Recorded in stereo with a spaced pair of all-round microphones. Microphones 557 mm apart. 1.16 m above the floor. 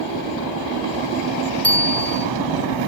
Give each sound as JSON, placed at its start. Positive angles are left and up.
{"t": 1.6, "sound": "a bicycle bell", "side_deg": 5}